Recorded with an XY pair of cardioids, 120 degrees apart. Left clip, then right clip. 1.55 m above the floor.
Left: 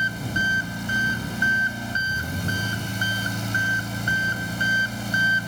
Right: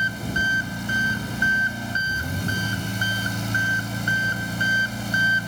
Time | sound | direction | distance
0.0 | an engine running | straight ahead | ?